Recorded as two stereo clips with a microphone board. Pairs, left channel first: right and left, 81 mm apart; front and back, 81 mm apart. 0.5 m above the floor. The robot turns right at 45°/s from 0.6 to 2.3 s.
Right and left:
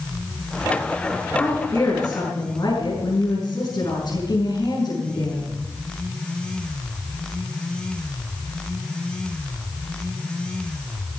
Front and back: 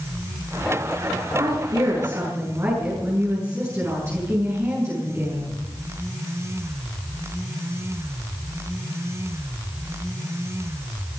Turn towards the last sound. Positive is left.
turn(degrees=-125)